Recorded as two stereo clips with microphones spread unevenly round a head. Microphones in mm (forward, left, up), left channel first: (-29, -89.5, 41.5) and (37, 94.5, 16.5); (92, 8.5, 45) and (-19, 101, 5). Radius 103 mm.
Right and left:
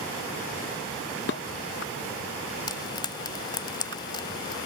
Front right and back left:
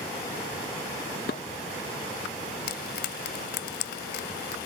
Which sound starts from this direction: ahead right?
Frying, at 2.7 s.